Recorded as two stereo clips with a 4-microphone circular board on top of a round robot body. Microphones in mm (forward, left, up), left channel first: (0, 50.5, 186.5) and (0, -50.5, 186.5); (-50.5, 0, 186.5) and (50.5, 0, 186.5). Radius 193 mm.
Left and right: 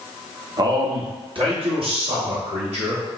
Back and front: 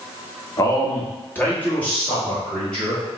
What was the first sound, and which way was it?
A man speaking, 130° right.